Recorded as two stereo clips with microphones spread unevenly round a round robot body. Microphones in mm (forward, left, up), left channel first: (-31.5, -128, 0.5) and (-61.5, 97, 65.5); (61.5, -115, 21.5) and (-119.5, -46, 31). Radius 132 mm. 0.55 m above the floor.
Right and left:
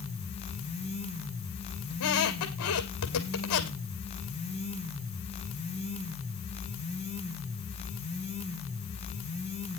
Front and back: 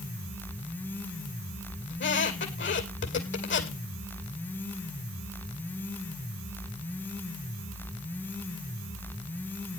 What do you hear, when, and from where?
1.9 s a squeak: 45° right, 2.5 m